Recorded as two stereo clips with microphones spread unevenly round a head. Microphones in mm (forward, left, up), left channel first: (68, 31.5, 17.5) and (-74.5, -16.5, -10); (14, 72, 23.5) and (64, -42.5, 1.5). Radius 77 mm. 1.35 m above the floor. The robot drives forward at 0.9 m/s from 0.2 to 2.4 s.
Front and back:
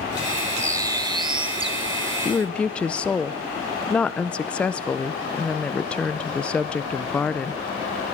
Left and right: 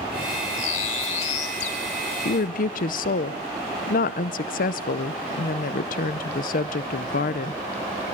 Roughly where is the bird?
Behind left.